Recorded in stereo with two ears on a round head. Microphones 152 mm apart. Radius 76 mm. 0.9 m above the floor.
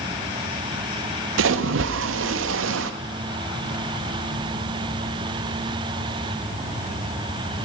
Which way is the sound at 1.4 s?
85° right.